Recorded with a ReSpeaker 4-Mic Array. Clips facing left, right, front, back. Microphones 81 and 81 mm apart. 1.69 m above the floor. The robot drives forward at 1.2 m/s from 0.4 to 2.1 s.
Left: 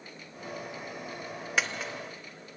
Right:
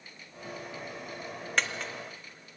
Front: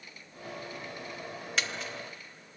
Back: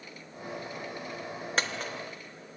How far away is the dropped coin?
About 1.3 m.